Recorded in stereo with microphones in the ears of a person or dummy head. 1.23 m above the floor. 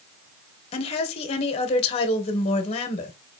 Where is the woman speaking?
35° left (ahead or behind), 1.1 m.